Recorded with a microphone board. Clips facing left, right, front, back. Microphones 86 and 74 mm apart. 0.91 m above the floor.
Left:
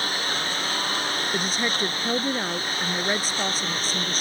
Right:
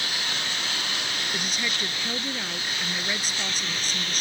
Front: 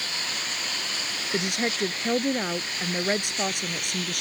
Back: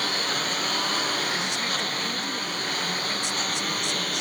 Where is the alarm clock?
No alarm clock in this recording.